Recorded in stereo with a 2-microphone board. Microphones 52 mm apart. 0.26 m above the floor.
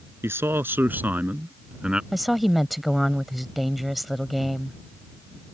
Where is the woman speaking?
Centre (ahead or behind).